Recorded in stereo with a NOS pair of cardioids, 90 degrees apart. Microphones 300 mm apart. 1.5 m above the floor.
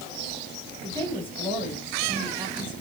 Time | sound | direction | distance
0.8 | a woman speaking | 10° right | 2 m